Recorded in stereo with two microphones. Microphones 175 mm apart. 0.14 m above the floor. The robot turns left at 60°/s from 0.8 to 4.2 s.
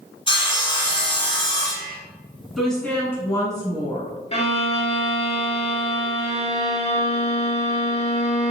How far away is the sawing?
About 0.9 m.